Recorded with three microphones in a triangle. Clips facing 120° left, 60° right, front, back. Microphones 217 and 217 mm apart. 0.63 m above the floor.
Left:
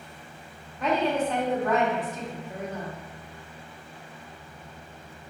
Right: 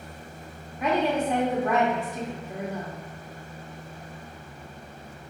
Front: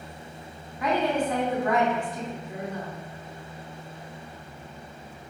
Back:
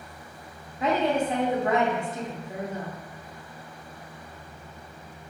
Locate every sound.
0.8 s a woman speaking: 130° right, 0.7 m